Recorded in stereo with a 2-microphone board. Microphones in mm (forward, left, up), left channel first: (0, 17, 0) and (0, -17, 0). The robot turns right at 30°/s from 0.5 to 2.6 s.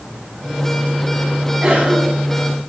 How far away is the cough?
About 5.5 m.